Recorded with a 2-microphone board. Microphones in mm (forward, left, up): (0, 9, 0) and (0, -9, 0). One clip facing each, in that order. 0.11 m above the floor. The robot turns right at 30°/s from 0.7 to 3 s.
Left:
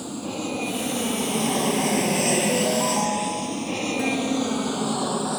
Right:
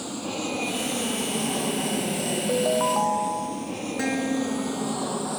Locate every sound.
0.0 s an aircraft: 15° right (ahead or behind); by 5.4 s 20° left (ahead or behind)
2.5 s a ringtone: 40° right (ahead or behind); by 3.7 s 25° right (ahead or behind)
4.0 s a guitar: 45° right (ahead or behind)